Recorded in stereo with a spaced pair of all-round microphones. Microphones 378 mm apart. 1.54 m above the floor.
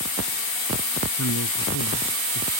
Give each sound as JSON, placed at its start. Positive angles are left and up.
{"t": 1.1, "sound": "a man speaking", "side_deg": 55}